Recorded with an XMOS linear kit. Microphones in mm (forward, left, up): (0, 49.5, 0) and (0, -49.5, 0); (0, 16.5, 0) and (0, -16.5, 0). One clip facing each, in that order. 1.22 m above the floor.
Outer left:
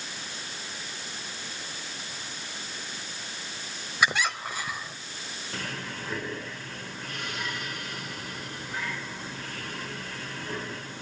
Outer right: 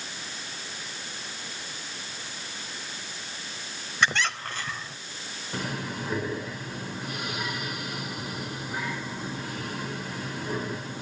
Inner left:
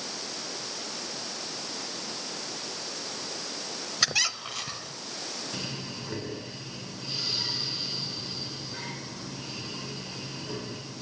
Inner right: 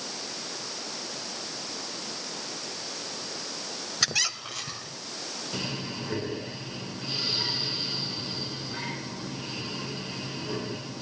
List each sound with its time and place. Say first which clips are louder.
4.0 s a squeak: even, inner left 1 dB; 10° left (ahead or behind), 1.1 m
5.5 s breathing: outer right 5 dB, inner right 3 dB; 15° right (ahead or behind), 2 m